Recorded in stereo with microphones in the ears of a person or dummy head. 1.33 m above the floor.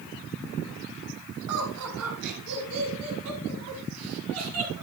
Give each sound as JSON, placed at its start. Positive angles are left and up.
{"t": 1.5, "sound": "laughter", "side_deg": -80, "distance_m": 7.5}